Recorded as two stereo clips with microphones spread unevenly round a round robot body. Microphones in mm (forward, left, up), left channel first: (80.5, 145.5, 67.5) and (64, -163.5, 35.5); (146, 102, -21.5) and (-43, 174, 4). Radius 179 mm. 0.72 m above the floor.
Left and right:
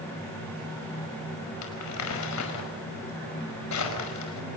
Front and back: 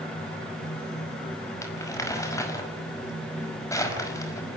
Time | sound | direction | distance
1.6 | crumpling | 55° left | 5.5 m